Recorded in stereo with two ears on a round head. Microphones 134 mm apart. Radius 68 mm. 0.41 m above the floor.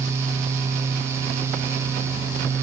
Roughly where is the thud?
No thud in this recording.